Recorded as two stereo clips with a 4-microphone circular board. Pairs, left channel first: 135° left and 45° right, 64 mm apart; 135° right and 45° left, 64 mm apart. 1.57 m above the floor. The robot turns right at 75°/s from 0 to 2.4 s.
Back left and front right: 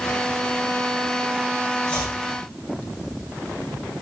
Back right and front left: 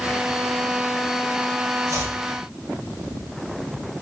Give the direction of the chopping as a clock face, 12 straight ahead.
10 o'clock.